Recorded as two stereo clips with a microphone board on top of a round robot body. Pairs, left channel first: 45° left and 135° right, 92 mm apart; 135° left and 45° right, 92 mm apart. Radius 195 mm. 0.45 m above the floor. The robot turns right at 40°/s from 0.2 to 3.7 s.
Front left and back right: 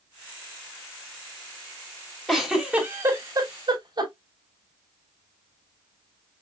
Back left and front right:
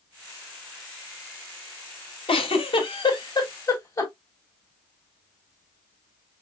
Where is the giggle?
135° left, 3.5 m; by 4.1 s 165° right, 3.5 m.